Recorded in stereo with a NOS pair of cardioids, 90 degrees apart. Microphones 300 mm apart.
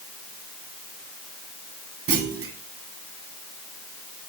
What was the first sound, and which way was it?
A clunk, 50° right.